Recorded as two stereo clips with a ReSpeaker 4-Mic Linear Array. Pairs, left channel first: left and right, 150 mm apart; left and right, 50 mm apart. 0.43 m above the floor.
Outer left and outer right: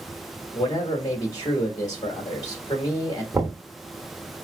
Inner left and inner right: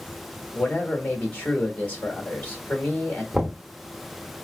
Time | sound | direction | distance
0.5 | a man speaking | 25° left (ahead or behind) | 1.3 m
3.3 | knocking | 20° right (ahead or behind) | 0.9 m